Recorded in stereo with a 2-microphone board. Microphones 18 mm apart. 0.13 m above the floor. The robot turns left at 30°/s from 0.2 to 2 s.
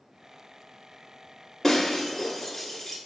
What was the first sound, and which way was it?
Breaking glass, 25° left (ahead or behind).